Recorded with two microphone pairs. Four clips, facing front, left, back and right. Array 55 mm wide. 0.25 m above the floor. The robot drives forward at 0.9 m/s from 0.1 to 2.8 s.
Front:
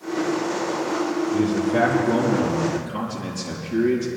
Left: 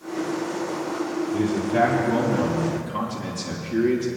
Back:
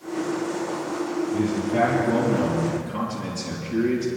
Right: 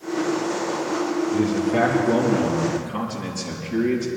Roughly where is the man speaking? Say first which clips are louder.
Even, front 3 dB; right.